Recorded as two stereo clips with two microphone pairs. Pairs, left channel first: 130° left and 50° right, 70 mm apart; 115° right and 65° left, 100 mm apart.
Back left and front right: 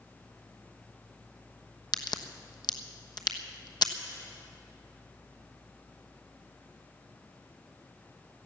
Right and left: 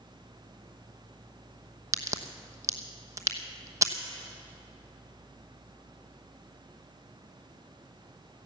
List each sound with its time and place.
1.9 s a crack: 125° left, 1.0 m